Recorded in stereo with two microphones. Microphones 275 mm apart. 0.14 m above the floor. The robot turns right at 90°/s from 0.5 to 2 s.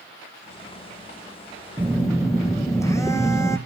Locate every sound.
1.8 s a phone buzzing: 10° right (ahead or behind), 1.6 m; by 3.6 s 10° left (ahead or behind), 1.6 m